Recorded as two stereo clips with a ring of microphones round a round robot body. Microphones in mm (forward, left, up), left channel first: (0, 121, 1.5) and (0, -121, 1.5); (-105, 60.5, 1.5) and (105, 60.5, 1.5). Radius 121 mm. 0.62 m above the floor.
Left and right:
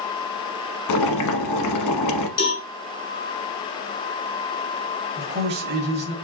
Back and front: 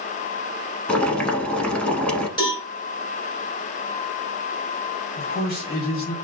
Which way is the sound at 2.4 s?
110° left.